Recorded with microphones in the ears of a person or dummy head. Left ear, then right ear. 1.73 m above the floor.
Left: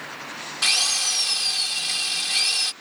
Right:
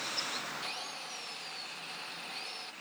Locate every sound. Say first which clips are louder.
0.6 s a drill: left 19 dB; 70° left (ahead or behind)